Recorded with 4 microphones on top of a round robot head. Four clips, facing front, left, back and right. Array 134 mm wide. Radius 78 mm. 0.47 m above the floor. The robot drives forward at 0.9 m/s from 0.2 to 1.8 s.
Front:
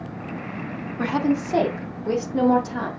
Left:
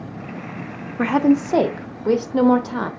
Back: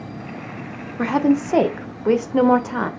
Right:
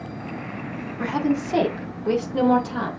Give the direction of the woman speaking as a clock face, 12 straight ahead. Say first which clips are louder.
Left 7 dB, back 4 dB; 8 o'clock.